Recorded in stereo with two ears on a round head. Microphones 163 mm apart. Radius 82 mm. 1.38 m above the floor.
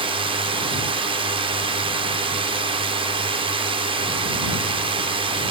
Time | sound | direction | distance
0.0 | a drone | 30° right (ahead or behind) | ?